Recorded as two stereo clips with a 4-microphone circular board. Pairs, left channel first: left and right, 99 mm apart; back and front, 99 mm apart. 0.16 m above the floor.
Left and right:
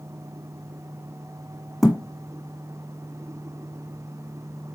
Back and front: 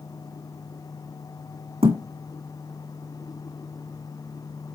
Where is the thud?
Straight ahead, 1.6 m.